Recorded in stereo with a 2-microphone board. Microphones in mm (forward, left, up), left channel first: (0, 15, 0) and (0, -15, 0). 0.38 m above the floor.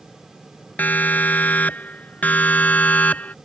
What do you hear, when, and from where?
0.8 s a siren: 75° left (ahead or behind); by 3.4 s 60° left (ahead or behind)